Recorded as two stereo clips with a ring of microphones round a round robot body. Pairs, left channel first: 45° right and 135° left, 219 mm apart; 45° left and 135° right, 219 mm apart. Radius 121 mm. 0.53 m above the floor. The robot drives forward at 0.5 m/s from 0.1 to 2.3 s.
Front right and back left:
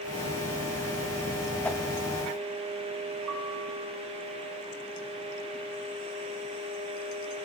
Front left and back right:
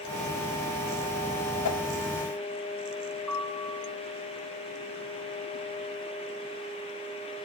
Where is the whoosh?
35° left, 0.6 m; by 1.8 s 45° left, 0.6 m.